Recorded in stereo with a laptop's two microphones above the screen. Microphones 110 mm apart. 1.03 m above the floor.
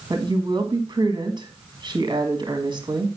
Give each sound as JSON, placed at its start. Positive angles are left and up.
{"t": 0.1, "sound": "a woman speaking", "side_deg": -40, "distance_m": 1.7}